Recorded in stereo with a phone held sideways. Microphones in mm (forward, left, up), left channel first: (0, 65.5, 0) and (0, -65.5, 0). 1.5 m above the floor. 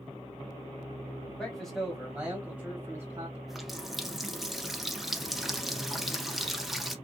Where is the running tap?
Centre (ahead or behind), 0.5 m.